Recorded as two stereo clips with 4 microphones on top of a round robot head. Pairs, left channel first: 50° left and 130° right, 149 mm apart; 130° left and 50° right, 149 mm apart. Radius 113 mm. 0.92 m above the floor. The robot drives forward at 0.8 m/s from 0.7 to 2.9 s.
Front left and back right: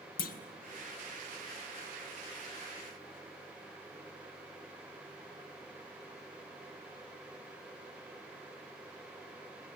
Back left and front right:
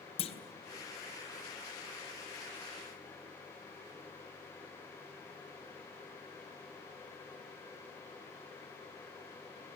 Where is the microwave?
No microwave in this recording.